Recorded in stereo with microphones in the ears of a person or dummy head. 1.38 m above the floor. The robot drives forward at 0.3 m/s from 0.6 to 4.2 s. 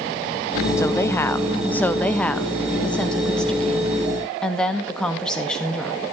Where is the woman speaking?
20° left (ahead or behind), 0.7 m; by 6.0 s 10° left (ahead or behind), 1.7 m.